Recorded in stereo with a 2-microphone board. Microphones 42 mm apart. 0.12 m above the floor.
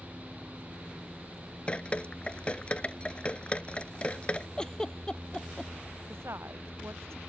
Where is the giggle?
15° left (ahead or behind).